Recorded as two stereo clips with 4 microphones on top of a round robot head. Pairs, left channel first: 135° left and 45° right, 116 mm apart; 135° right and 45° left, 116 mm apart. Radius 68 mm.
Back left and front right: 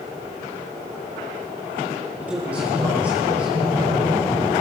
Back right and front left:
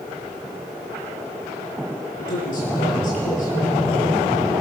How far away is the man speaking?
About 9 m.